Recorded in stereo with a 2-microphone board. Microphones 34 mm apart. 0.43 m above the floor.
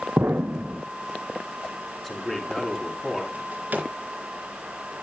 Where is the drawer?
50° right (ahead or behind), 3.5 m.